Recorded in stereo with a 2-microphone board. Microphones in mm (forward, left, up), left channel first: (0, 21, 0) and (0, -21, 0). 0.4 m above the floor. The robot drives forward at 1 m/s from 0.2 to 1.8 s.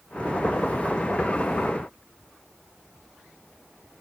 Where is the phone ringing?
No phone ringing in this recording.